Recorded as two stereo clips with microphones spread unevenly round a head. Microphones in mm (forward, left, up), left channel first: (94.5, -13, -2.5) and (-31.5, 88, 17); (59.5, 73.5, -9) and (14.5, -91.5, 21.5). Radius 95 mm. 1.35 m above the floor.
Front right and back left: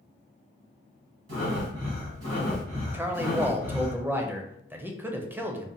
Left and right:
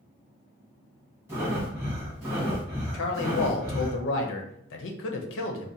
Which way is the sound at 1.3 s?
175° left.